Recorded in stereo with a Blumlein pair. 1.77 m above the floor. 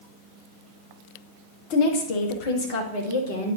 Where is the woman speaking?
45° left, 1.5 m; by 3.6 s 60° left, 2.5 m.